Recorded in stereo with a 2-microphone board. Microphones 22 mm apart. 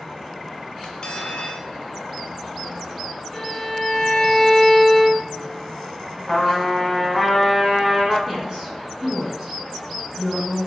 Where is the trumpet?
5° left (ahead or behind), 1.2 m.